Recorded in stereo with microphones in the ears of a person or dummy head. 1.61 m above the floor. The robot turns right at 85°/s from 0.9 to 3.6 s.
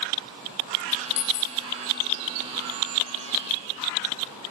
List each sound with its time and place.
1.2 s a dropped coin: 80° left, 3 m; by 1.6 s 115° left, 3 m